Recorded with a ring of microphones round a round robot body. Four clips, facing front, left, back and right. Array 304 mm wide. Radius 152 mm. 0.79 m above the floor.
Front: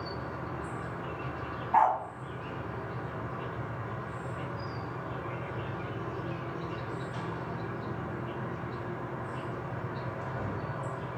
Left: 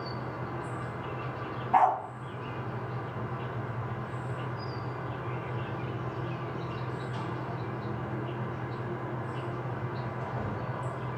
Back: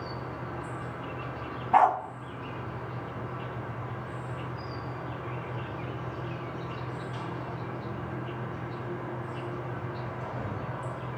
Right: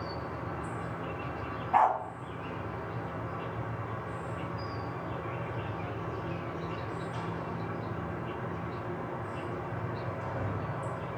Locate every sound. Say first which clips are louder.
0.0 s an insect: left 1 dB, even; 175° left, 2 m
1.7 s a dog barking: left 1 dB, back 3 dB; straight behind, 0.6 m